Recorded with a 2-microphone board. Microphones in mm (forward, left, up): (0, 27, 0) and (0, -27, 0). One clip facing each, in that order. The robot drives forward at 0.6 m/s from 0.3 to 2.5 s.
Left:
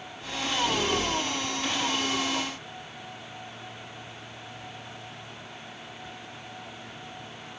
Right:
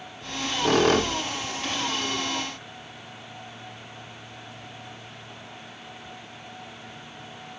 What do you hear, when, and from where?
0.2 s a squeak: 60° right (ahead or behind), 0.9 m; by 2.5 s 40° right (ahead or behind), 1.2 m